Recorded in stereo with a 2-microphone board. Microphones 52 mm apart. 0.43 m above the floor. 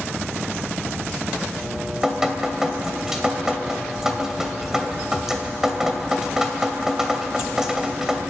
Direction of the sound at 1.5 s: 10° right (ahead or behind).